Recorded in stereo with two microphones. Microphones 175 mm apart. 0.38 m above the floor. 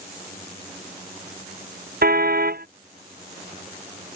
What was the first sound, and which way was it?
A car horn, 65° right (ahead or behind).